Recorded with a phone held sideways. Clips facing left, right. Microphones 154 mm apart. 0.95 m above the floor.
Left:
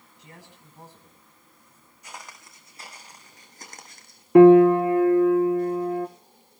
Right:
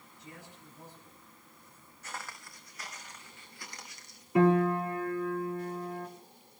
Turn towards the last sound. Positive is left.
turn(degrees=60)  # may be behind; listen again after turning